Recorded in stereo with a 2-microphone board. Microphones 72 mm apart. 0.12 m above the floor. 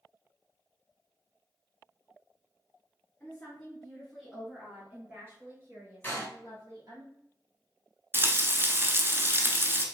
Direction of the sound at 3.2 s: 15° left (ahead or behind).